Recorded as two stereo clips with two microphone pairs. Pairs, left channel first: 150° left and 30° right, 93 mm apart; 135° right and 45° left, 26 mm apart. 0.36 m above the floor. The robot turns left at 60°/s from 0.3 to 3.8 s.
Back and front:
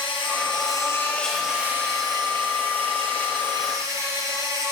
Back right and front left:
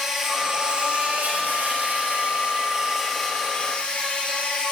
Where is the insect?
125° left, 4 m; by 4.7 s 85° right, 4 m.